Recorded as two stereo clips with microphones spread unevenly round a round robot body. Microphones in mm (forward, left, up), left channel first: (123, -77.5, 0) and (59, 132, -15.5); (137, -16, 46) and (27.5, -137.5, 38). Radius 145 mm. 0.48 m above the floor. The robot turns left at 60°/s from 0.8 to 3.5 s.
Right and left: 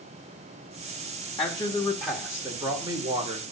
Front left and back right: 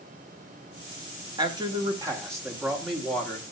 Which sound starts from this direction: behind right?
A man speaking, at 1.4 s.